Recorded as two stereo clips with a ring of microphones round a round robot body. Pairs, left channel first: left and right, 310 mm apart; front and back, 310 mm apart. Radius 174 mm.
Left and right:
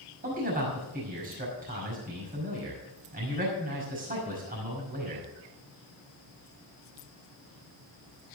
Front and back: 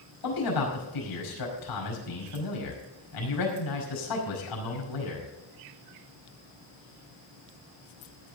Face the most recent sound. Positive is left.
turn(degrees=-25)